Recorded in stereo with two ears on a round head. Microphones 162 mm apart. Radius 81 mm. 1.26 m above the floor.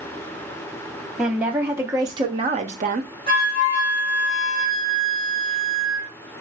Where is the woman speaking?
5° right (ahead or behind), 1.0 m; by 3.1 s 45° right (ahead or behind), 0.6 m.